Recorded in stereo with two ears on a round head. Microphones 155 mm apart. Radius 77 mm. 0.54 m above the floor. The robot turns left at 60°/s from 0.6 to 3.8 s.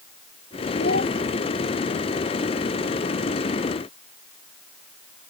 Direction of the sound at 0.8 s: 70° left (ahead or behind).